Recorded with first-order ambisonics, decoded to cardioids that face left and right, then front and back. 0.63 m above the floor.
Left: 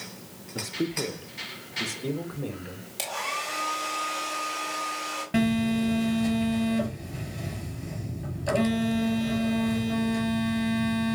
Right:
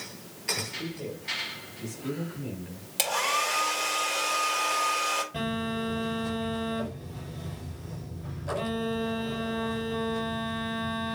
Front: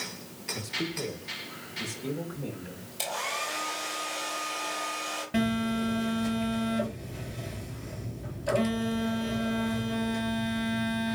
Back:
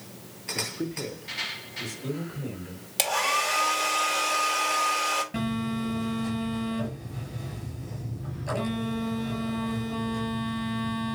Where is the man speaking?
110° left, 1.5 m; by 2.9 s 85° left, 3.5 m.